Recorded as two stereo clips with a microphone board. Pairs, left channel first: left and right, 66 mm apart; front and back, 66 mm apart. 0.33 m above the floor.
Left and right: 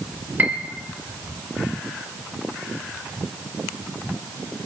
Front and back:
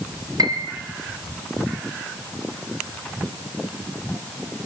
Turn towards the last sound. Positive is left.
turn(degrees=-150)